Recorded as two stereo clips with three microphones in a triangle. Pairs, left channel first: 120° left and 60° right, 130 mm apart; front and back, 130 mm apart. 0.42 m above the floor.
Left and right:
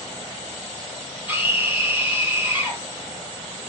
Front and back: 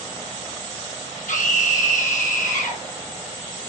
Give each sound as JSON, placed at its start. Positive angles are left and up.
{"t": 1.3, "sound": "a scream", "azimuth_deg": 15, "distance_m": 9.5}